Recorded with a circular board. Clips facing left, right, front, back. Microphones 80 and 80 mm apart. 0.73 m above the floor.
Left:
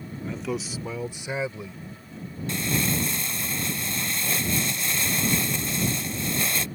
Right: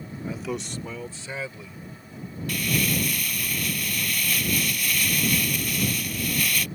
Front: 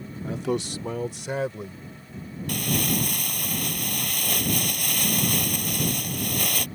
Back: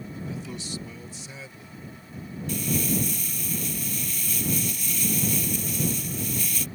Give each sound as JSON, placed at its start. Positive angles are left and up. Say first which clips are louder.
{"t": 0.2, "sound": "a man speaking", "louder": "left 1 dB, front 13 dB", "azimuth_deg": -15}
{"t": 2.5, "sound": "crumpling", "louder": "right 1 dB, front 1 dB", "azimuth_deg": 25}